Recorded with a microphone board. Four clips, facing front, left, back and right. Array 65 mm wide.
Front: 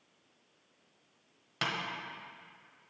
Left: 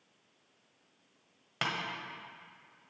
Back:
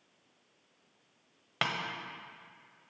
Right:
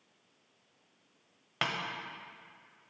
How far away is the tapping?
About 1.3 m.